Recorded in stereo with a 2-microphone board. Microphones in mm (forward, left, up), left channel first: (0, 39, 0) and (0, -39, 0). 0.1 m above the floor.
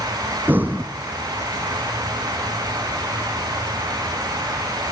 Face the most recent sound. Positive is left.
turn(degrees=-25)  # may be behind; listen again after turning